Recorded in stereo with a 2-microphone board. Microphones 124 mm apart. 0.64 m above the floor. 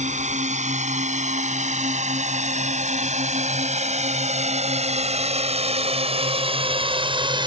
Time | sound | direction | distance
0.0 | a drone | 75° right (ahead or behind) | ?